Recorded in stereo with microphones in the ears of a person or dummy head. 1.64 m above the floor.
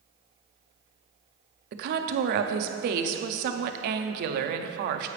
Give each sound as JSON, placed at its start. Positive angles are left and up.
{"t": 1.7, "sound": "a woman speaking", "side_deg": -60, "distance_m": 0.5}